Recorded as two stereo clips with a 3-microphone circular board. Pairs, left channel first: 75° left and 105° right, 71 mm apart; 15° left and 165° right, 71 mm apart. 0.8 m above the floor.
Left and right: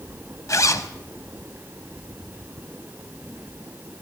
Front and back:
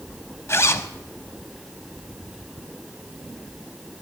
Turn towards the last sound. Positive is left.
turn(degrees=55)